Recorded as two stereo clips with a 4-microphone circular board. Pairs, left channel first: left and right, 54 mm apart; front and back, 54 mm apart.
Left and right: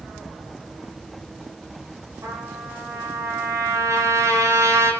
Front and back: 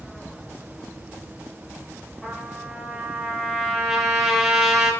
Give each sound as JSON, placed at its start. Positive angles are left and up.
{"t": 2.2, "sound": "a trumpet", "azimuth_deg": -95, "distance_m": 5.5}